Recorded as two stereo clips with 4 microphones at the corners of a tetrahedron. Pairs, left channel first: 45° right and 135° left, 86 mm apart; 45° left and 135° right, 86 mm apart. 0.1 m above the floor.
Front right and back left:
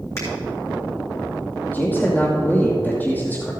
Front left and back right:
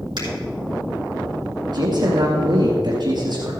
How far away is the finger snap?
About 4.5 m.